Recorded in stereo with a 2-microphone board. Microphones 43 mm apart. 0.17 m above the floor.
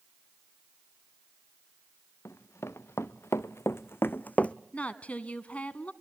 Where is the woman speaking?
30° left (ahead or behind), 1.3 m.